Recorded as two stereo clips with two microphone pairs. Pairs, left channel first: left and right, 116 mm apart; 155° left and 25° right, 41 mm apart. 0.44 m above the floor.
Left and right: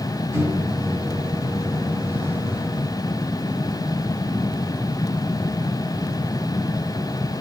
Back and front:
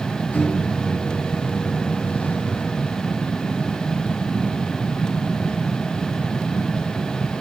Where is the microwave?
155° right, 2.5 m.